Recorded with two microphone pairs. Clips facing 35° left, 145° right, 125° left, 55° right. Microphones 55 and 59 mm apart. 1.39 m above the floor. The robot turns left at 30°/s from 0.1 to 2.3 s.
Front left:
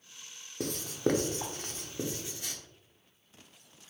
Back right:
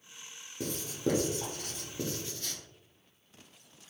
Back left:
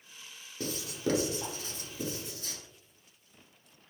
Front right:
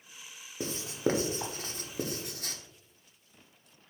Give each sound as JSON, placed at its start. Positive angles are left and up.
{"t": 0.6, "sound": "writing", "azimuth_deg": 15, "distance_m": 0.6}